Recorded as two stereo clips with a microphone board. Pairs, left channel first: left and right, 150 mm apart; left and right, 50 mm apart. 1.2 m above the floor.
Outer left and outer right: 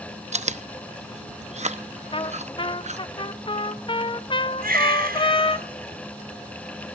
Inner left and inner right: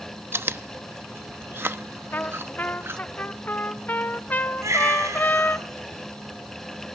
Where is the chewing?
50° right (ahead or behind), 0.8 m.